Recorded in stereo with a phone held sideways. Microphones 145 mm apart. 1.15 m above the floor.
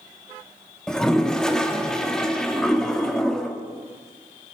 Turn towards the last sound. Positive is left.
turn(degrees=5)  # may be behind; listen again after turning